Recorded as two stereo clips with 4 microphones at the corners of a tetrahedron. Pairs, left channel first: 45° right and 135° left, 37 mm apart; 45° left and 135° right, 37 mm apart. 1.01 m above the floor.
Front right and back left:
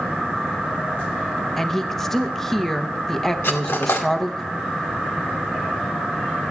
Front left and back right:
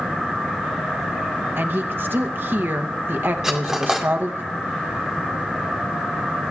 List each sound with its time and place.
1.6 s a woman speaking: 125° right, 0.8 m
3.4 s cutlery clinking: 60° right, 1.7 m